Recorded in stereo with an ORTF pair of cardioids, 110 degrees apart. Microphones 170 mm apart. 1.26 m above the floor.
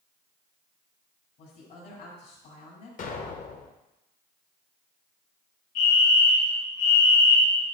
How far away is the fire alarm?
About 3 m.